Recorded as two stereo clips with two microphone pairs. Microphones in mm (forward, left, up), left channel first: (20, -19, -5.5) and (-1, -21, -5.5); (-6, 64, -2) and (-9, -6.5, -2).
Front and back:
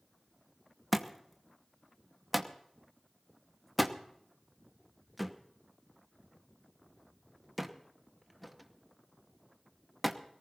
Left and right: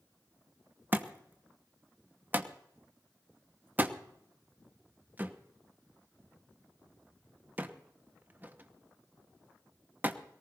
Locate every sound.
0.9 s a thud: 85° right, 0.9 m